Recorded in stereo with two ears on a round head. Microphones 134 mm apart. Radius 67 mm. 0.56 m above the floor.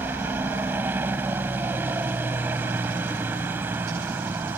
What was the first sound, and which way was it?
A helicopter, 15° right (ahead or behind).